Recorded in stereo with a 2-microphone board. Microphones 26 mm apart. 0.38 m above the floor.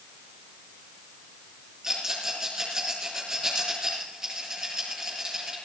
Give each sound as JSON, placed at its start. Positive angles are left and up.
{"t": 1.8, "sound": "a rattle", "side_deg": -20, "distance_m": 7.0}